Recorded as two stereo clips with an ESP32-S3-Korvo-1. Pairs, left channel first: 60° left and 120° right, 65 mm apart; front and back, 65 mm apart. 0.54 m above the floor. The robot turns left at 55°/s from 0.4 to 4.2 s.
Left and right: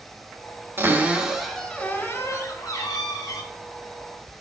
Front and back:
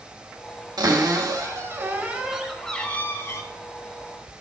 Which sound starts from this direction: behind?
A cupboard door, at 0.8 s.